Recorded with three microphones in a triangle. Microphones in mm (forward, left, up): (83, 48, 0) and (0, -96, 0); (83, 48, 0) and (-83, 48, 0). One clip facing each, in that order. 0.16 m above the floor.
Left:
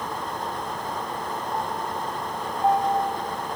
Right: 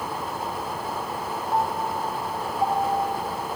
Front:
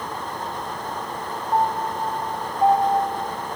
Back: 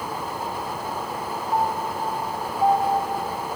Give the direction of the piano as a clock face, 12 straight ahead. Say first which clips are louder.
Right 6 dB, front 3 dB; 3 o'clock.